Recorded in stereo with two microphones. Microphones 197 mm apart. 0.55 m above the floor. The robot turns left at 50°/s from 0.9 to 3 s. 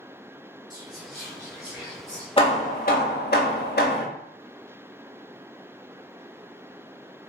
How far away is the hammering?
About 0.5 m.